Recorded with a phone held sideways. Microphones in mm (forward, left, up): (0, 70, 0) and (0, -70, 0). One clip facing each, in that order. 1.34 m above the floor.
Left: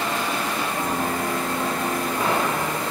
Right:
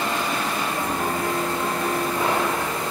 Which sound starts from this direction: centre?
A piano, at 0.8 s.